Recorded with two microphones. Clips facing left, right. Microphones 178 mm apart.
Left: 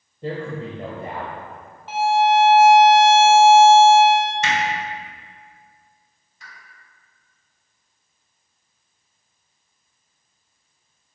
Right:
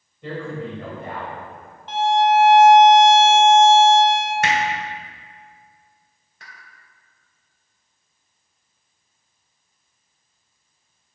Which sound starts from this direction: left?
A man speaking, at 0.2 s.